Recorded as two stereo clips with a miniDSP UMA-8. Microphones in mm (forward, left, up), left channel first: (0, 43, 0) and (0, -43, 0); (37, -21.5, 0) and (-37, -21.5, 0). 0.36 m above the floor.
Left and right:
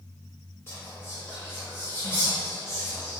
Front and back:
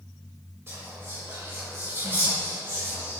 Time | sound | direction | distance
0.7 | whispering | 140° left | 1.4 m